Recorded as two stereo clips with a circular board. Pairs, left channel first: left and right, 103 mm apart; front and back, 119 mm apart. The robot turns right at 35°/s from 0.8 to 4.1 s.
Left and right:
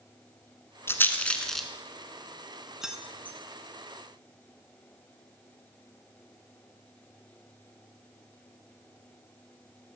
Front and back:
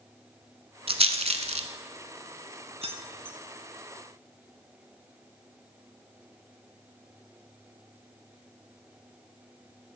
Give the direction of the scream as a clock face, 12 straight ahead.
I don't hear a scream.